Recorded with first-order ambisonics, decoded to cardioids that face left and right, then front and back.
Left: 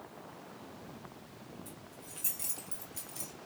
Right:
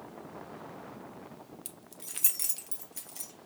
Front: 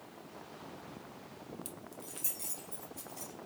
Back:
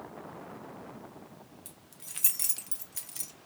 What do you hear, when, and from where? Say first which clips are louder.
1.6 s keys jangling: right 1 dB, front 3 dB; 75° right, 0.5 m; by 3.3 s 175° right, 1.0 m